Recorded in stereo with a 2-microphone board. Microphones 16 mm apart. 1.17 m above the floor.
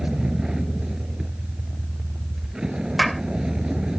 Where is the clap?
Centre (ahead or behind).